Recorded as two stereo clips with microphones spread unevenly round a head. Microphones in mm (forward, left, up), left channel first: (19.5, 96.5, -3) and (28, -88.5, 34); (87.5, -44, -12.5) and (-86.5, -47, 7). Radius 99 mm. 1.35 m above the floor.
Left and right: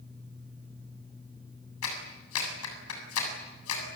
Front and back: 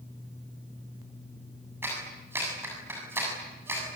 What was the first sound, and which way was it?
A clap, 100° left.